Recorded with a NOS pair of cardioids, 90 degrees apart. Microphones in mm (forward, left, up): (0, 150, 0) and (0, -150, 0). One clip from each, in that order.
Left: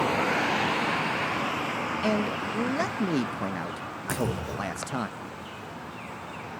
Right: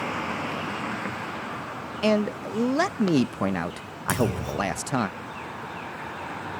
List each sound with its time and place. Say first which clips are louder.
2.0 s a man speaking: right 7 dB; 25° right, 0.5 m
4.1 s a clunk: right 5 dB; 50° right, 6 m